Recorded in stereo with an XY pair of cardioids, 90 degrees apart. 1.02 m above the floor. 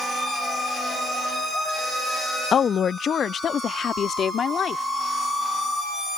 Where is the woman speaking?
55° left; by 4.8 s 60° left.